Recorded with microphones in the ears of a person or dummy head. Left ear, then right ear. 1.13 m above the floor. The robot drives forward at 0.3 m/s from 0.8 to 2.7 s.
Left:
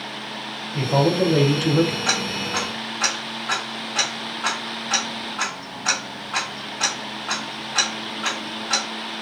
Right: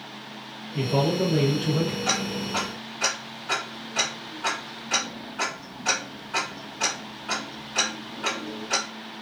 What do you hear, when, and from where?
0.7 s a man speaking: 55° left (ahead or behind), 0.7 m; by 1.9 s 85° left, 0.6 m
2.0 s ticking: 30° left (ahead or behind), 1.0 m; by 8.8 s 25° left (ahead or behind), 1.1 m